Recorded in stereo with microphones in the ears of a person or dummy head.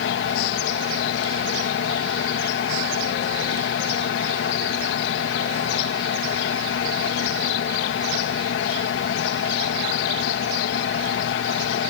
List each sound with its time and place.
0.0 s a fan: 60° left (ahead or behind)